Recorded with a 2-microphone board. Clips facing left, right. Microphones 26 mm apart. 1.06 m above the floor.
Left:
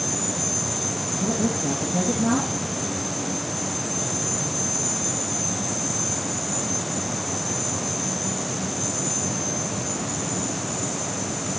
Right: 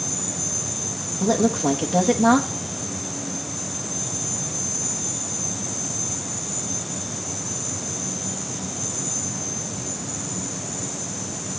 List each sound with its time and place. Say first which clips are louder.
1.2 s a woman speaking: right 6 dB; 65° right (ahead or behind), 1.7 m